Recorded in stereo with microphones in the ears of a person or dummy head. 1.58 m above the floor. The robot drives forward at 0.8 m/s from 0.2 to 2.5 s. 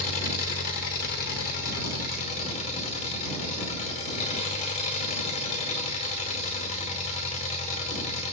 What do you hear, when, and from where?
0.0 s an engine running: 45° left (ahead or behind), 1.7 m; by 8.3 s 35° left (ahead or behind), 2 m